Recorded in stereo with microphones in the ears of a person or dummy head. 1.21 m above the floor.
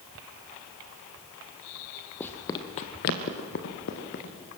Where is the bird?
No bird in this recording.